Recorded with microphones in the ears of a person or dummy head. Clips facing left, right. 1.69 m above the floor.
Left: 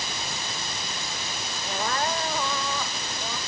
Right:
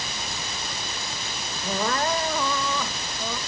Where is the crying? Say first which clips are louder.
Right 3 dB; 60° right (ahead or behind).